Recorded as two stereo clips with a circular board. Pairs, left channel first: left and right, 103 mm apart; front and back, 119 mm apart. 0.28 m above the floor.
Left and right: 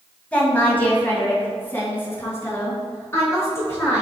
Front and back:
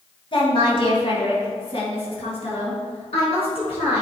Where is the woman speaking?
15° left, 2 m; by 4.0 s 30° left, 4 m.